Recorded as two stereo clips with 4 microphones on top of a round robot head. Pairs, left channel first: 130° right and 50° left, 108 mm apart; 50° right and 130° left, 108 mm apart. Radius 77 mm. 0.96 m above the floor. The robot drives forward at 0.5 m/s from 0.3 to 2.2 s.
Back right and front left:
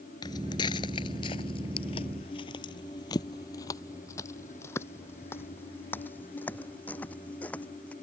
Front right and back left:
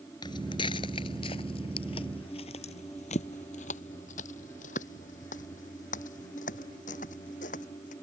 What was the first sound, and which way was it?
Footsteps, 90° right.